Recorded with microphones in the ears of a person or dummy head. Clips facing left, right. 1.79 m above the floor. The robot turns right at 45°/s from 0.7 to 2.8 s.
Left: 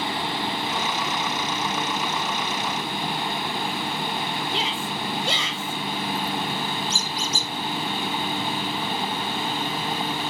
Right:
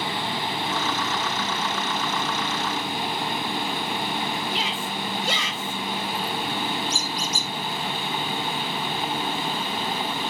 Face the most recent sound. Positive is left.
turn(degrees=25)  # may be behind; listen again after turning